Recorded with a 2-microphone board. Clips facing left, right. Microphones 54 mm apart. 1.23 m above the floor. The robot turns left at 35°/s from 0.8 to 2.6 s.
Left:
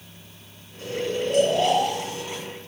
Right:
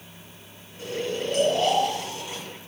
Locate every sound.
0.8 s snoring: 165° right, 1.1 m; by 2.4 s 140° left, 1.1 m